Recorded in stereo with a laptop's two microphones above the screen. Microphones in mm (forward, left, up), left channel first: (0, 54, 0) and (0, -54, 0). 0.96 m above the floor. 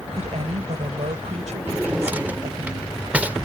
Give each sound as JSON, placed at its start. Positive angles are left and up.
{"t": 0.1, "sound": "a woman speaking", "side_deg": -85}
{"t": 1.7, "sound": "a drawer", "side_deg": -15}